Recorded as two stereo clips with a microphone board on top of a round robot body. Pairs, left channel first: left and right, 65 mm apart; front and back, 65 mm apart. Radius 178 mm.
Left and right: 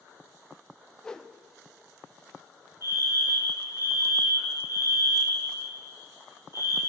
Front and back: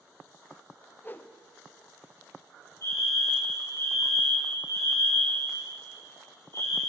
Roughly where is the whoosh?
Ahead.